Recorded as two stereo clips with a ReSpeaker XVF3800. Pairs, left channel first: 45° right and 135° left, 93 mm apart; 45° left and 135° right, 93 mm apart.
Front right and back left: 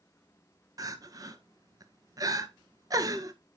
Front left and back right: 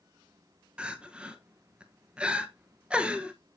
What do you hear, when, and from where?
0.8 s crying: 150° left, 0.6 m